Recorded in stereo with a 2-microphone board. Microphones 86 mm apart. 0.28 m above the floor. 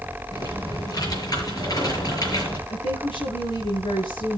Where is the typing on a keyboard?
45° left (ahead or behind), 6.5 m.